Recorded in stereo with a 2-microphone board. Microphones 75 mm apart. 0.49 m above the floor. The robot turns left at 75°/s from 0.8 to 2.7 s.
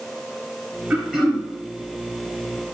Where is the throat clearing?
160° right, 4.5 m; by 1.5 s 160° left, 4.5 m.